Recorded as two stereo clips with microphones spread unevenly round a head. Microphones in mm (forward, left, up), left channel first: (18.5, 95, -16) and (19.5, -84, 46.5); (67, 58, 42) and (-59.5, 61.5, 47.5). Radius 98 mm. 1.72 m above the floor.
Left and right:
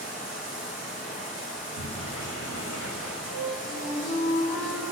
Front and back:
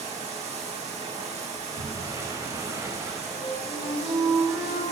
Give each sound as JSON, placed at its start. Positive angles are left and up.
{"t": 0.0, "sound": "running water", "azimuth_deg": 140, "distance_m": 8.0}
{"t": 1.6, "sound": "a sliding door", "azimuth_deg": 115, "distance_m": 6.5}
{"t": 3.3, "sound": "a flute", "azimuth_deg": 100, "distance_m": 8.0}